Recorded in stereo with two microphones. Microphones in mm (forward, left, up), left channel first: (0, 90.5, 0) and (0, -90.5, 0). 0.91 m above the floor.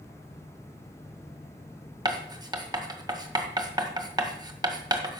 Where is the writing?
20° right (ahead or behind), 1.7 m.